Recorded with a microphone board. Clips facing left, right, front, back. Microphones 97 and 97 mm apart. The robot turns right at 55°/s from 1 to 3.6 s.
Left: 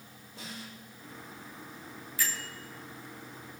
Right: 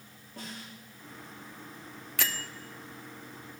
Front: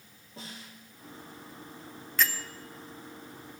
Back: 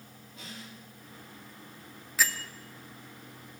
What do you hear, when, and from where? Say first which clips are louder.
0.4 s a snare drum: right 1 dB, front 1 dB; 55° right, 6 m
2.2 s a bell: right 1 dB, even; 95° right, 0.7 m; by 2.5 s 80° right, 0.7 m